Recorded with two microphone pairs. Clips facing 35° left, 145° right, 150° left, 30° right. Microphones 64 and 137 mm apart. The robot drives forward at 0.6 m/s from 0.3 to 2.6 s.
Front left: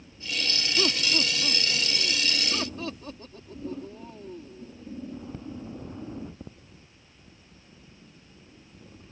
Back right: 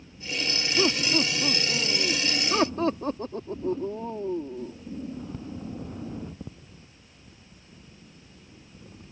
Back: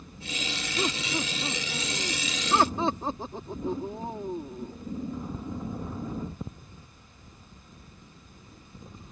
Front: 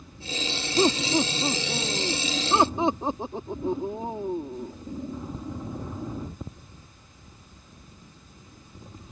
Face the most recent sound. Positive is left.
turn(degrees=-95)